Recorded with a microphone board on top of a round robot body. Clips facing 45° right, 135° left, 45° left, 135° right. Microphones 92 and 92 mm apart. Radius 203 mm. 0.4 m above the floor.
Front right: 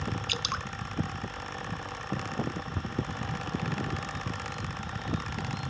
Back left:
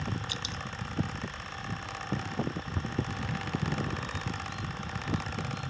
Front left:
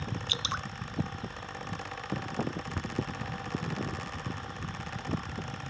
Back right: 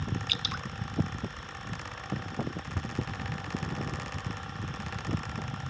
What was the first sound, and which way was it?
Dripping, 15° right.